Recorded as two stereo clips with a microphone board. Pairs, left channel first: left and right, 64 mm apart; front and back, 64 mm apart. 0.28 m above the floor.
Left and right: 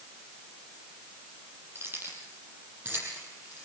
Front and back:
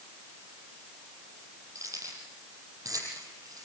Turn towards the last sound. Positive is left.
turn(degrees=-155)